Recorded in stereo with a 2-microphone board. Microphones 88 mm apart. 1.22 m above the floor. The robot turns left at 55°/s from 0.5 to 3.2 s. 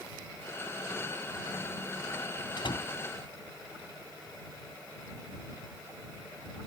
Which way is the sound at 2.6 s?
60° left (ahead or behind).